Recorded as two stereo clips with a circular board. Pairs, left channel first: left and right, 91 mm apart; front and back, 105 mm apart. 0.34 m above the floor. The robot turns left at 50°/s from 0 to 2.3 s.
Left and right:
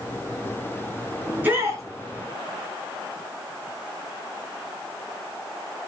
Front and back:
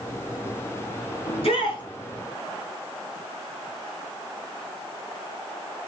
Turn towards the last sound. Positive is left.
turn(degrees=-65)